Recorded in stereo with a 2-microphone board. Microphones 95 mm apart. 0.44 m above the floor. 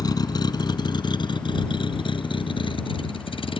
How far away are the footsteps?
No footsteps in this recording.